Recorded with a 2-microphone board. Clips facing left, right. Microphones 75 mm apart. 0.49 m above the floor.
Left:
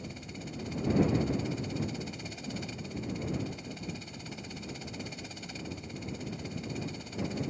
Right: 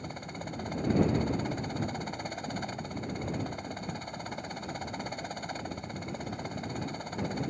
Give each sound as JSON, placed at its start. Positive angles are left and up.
{"t": 0.0, "sound": "a helicopter", "side_deg": -45}